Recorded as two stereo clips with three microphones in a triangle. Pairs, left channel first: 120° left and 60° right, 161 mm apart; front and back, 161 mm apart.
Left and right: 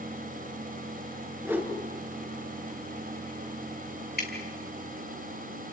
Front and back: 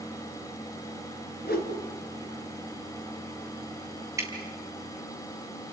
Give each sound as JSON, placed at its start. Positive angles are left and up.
{"t": 1.4, "sound": "a whoosh", "azimuth_deg": 15, "distance_m": 4.0}
{"t": 4.2, "sound": "dripping", "azimuth_deg": 110, "distance_m": 5.0}